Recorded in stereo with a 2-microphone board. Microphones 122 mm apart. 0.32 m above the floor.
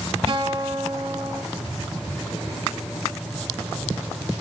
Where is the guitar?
45° right (ahead or behind), 3.5 m.